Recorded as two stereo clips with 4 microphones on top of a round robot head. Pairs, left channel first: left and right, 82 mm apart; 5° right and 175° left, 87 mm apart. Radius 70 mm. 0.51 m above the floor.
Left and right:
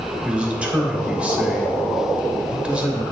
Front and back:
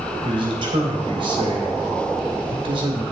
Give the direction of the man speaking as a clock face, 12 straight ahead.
6 o'clock.